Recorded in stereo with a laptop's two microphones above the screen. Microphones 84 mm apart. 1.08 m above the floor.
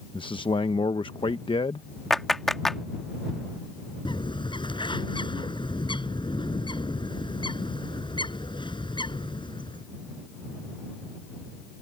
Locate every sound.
0.1 s a man speaking: 80° left
2.1 s a clap: 5° left (ahead or behind)
4.0 s a bird: 70° left (ahead or behind)